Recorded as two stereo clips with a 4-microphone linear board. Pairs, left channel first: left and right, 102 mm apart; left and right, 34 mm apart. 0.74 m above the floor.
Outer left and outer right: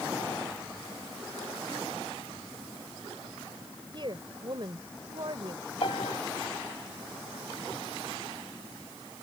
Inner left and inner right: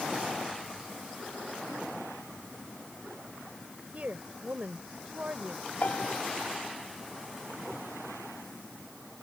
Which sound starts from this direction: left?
A piano, at 5.8 s.